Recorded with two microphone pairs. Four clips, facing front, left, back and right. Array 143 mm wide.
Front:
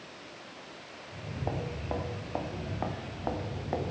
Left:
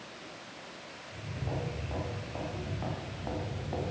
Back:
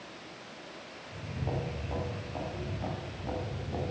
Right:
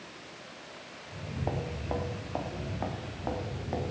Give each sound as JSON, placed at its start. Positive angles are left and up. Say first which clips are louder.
{"t": 1.1, "sound": "footsteps", "louder": "right 4 dB, front 1 dB", "azimuth_deg": -50, "distance_m": 3.5}